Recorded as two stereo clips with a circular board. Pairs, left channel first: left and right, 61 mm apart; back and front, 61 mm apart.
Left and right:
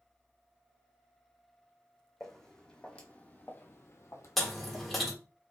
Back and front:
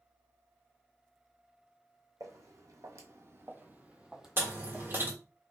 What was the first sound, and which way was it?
Footsteps, 5° left.